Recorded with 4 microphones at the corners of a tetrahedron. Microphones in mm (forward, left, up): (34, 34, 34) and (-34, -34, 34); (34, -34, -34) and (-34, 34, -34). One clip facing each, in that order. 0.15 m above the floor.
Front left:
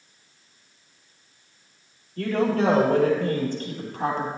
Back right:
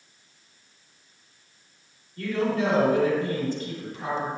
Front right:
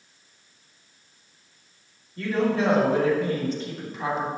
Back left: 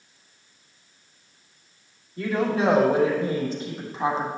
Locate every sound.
2.2 s a woman speaking: 55° left, 4.5 m; by 4.3 s 70° left, 5 m